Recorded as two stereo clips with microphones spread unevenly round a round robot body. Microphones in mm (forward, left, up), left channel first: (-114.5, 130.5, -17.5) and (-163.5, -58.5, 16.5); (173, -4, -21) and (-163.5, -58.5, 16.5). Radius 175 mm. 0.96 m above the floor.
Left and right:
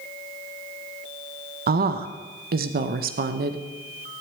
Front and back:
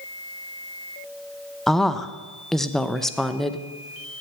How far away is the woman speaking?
About 0.7 m.